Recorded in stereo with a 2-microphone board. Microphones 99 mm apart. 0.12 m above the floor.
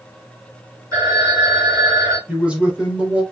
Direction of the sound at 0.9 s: 35° right (ahead or behind).